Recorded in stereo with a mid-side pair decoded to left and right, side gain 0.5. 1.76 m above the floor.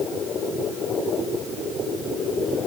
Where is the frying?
I don't hear frying.